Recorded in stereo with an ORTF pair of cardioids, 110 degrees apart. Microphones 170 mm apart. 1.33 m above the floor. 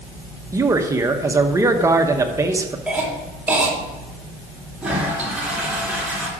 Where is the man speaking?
15° right, 1.0 m.